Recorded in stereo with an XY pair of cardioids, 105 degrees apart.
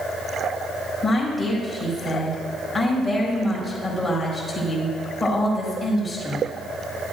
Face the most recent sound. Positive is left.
turn(degrees=15)